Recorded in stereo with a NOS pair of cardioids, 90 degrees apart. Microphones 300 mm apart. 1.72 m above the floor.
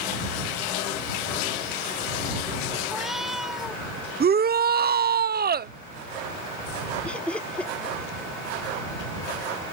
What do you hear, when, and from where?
2.9 s a cat meowing: straight ahead
4.2 s a shout: 30° right
7.0 s laughter: 5° left